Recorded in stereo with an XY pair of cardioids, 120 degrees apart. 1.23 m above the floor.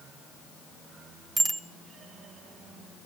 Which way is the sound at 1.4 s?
30° right.